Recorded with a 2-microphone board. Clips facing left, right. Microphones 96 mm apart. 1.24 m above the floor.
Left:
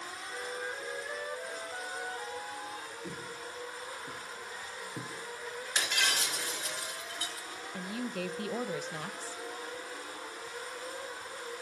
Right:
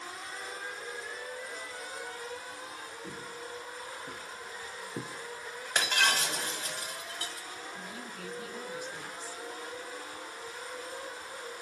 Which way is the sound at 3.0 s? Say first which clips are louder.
Even; centre (ahead or behind).